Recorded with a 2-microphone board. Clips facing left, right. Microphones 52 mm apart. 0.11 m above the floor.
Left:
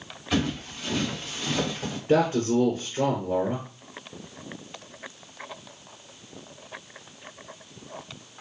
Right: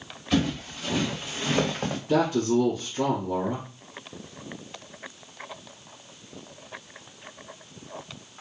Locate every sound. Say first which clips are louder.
0.3 s footsteps: right 2 dB; 5° left (ahead or behind), 1.7 m; by 2.0 s 55° right (ahead or behind), 1.0 m
2.1 s a man speaking: left 1 dB; 35° left (ahead or behind), 1.7 m